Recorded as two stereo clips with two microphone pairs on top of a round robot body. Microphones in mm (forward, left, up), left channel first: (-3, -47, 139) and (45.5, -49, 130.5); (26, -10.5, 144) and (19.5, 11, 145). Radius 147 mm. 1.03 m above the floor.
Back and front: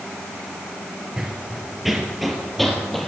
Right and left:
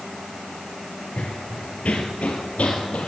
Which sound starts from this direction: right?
Running footsteps, at 1.2 s.